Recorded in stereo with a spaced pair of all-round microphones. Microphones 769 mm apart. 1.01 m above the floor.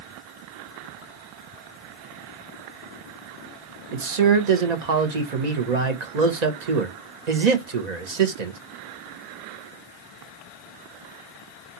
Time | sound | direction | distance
3.9 | a man speaking | 65° right (ahead or behind) | 0.9 m